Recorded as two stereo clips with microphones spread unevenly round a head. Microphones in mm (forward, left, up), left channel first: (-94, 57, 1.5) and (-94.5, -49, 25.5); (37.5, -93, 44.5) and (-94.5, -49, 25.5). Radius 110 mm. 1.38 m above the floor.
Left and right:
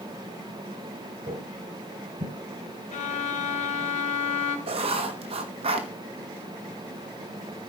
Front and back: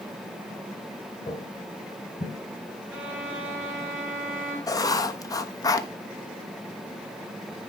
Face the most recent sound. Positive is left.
turn(degrees=-75)